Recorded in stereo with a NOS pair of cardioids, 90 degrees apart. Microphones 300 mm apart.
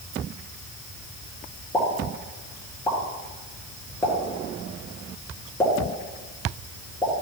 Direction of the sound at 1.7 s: 5° left.